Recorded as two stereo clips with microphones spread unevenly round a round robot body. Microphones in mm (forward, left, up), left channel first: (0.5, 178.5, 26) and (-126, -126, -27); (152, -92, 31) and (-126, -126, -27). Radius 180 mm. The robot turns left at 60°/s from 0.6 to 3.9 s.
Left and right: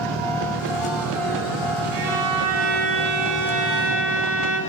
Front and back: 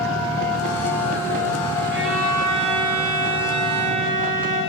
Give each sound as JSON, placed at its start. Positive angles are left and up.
{"t": 1.9, "sound": "a violin", "azimuth_deg": -120, "distance_m": 2.5}